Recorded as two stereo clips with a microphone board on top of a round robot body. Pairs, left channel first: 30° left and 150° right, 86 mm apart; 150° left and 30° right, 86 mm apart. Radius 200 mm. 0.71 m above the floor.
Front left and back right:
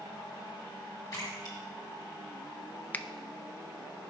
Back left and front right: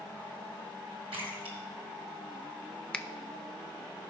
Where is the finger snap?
80° left, 0.7 m.